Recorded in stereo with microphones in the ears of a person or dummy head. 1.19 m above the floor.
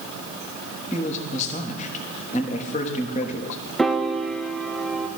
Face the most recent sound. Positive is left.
turn(degrees=0)  # may be behind; listen again after turning